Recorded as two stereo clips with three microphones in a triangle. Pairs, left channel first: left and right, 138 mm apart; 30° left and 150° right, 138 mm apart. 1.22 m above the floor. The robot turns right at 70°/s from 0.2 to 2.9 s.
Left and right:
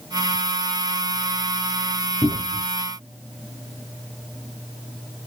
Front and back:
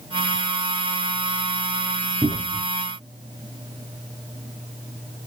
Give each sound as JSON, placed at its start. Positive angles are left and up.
{"t": 2.2, "sound": "a cupboard door", "azimuth_deg": 140, "distance_m": 0.8}